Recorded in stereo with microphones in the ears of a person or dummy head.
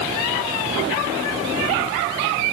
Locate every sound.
Only background noise.